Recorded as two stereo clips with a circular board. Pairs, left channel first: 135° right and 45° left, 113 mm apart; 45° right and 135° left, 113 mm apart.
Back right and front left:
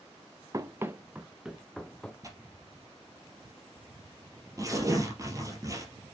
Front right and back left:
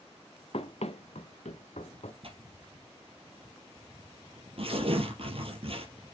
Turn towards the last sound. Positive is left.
turn(degrees=105)